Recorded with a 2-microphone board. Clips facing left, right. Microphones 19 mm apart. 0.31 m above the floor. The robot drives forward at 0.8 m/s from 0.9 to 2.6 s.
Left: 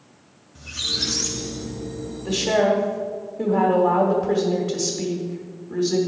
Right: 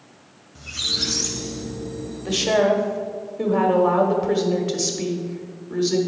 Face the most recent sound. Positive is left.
turn(degrees=-25)  # may be behind; listen again after turning